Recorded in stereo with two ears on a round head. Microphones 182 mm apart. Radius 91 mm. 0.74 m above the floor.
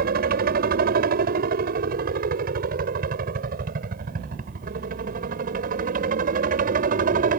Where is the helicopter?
45° right (ahead or behind).